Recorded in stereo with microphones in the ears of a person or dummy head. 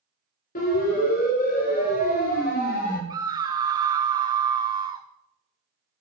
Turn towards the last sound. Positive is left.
turn(degrees=-20)  # may be behind; listen again after turning